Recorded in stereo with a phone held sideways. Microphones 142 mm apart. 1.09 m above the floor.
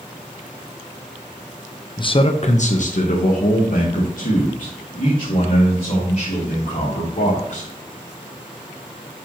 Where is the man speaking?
35° left (ahead or behind), 0.5 m; by 7.7 s 65° left (ahead or behind), 3.5 m.